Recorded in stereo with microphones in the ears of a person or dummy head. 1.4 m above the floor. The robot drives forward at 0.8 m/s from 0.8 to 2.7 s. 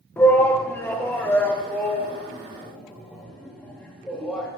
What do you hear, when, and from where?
0.2 s a shout: 10° left (ahead or behind), 1.1 m; by 4.5 s 5° left (ahead or behind), 2.5 m